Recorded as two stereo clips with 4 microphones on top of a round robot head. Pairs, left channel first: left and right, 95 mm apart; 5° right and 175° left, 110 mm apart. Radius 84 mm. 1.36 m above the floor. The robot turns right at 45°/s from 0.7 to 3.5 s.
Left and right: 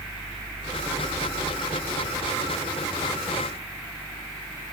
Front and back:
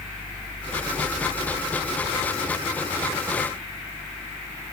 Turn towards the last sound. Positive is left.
No sound to turn to.